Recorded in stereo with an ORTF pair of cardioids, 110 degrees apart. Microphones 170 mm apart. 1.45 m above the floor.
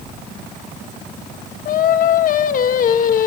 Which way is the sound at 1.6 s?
55° left.